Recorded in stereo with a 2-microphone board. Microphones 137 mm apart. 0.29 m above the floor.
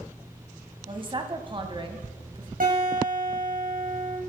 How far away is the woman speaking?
About 1.5 m.